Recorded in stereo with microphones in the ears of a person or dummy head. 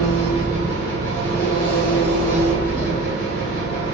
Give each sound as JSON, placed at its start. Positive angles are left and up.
{"t": 0.0, "sound": "an engine running", "side_deg": 35, "distance_m": 1.5}